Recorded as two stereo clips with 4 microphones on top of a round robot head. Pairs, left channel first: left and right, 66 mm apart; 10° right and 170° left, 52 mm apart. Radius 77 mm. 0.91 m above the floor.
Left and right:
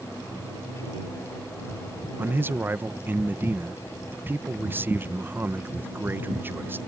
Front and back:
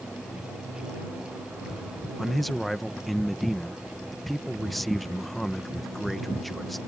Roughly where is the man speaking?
Right.